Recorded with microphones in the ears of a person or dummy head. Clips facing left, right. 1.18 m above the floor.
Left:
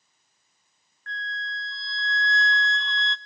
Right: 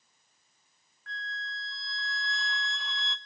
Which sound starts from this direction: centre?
A flute, at 1.1 s.